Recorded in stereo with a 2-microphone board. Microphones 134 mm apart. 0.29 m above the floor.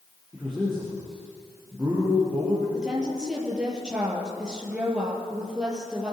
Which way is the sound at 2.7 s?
5° right (ahead or behind).